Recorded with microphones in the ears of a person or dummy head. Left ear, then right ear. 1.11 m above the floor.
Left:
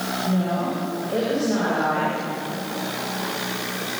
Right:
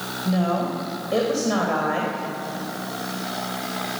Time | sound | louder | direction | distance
0.2 | a woman speaking | right 4 dB | 50° right (ahead or behind) | 4.5 m